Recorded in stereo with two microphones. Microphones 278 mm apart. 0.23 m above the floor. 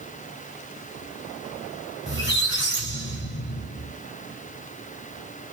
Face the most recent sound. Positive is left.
turn(degrees=40)  # may be behind; listen again after turning